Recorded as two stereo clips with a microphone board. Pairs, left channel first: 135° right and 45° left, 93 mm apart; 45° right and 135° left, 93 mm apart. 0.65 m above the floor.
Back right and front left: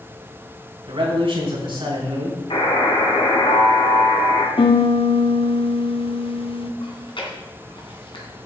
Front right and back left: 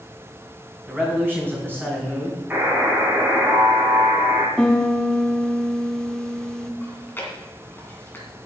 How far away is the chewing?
About 2.5 m.